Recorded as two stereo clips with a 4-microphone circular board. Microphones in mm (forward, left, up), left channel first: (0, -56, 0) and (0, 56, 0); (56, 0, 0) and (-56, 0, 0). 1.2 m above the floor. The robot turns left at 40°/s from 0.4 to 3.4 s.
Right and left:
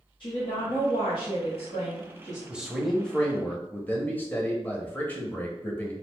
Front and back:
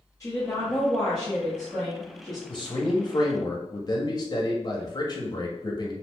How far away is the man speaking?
About 0.6 m.